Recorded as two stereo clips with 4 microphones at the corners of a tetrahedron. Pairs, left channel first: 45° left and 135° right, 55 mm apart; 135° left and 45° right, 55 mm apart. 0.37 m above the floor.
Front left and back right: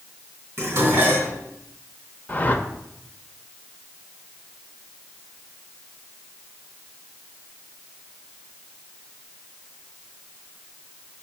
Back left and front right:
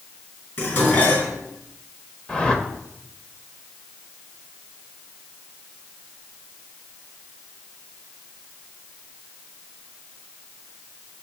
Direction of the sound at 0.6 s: Straight behind.